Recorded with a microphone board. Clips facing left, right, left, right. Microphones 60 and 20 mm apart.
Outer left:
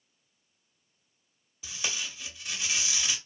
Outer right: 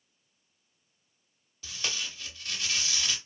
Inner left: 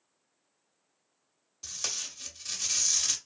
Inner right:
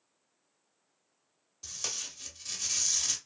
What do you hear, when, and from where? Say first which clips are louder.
1.6 s tape being pulled: even, inner left 2 dB; 10° left (ahead or behind), 0.6 m